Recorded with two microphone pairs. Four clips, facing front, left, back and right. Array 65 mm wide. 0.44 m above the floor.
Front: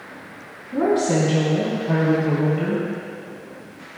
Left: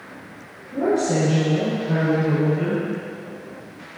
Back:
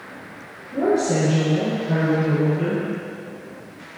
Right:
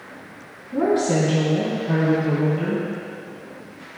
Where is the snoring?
I don't hear snoring.